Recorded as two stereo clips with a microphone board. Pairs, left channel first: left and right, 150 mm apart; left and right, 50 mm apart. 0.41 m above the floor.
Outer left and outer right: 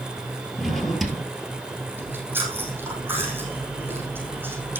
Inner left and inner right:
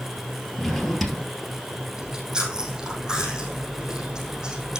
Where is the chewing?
15° right (ahead or behind), 4 m.